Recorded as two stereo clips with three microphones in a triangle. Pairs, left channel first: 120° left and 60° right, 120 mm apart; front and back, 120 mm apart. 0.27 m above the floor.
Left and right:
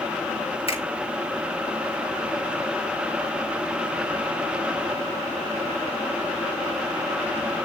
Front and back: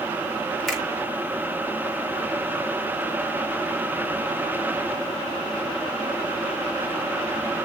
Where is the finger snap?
90° left, 3 m.